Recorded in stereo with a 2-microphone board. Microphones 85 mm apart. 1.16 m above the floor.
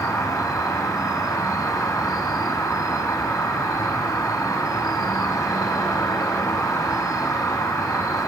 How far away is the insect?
About 1.8 m.